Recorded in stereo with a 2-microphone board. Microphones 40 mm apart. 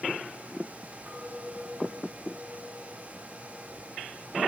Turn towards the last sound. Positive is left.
turn(degrees=-30)  # may be behind; listen again after turning